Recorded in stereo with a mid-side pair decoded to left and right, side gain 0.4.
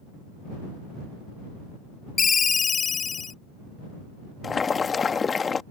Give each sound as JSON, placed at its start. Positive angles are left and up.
{"t": 2.2, "sound": "a ringtone", "azimuth_deg": 45}
{"t": 4.4, "sound": "boiling", "azimuth_deg": 40}